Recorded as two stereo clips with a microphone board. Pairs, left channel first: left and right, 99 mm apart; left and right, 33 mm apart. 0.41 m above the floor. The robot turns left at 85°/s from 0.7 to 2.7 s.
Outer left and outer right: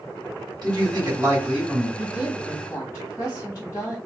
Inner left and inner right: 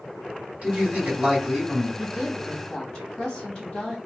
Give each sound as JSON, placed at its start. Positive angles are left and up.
{"t": 0.6, "sound": "a man speaking", "azimuth_deg": -85, "distance_m": 2.0}
{"t": 2.0, "sound": "a woman speaking", "azimuth_deg": -150, "distance_m": 1.8}